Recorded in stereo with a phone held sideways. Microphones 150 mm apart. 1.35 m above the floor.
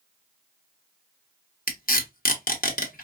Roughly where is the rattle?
No rattle in this recording.